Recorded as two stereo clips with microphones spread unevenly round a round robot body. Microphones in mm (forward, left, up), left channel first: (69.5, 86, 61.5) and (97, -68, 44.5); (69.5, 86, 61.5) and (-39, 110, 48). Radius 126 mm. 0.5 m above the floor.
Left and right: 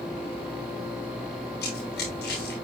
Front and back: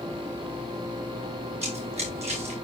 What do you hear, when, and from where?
1.6 s running footsteps: 145° left, 6.5 m